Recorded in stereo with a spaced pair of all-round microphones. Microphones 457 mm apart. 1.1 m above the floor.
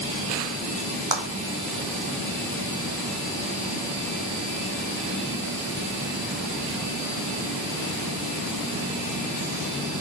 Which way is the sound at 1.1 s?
10° right (ahead or behind).